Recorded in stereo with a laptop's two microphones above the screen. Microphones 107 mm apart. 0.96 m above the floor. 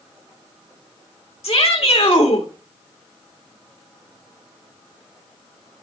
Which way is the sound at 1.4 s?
70° left (ahead or behind).